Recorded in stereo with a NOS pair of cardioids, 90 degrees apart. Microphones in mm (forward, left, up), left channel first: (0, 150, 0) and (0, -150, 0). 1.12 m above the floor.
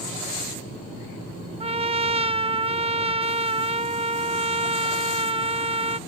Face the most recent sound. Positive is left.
turn(degrees=-20)